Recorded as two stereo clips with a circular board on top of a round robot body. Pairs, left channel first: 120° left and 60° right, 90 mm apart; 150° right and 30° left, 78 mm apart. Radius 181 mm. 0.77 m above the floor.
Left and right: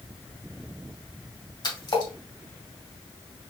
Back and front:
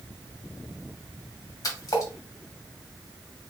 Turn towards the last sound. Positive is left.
turn(degrees=160)